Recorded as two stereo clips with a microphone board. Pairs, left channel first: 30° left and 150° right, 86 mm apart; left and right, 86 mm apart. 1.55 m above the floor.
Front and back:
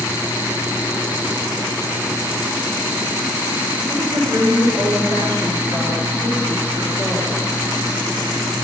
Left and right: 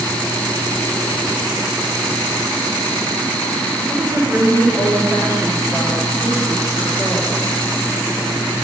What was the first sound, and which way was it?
A woman speaking, 125° right.